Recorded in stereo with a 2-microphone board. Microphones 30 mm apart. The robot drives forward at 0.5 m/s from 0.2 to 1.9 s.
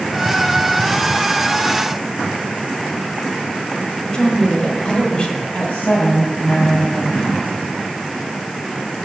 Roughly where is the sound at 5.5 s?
Left.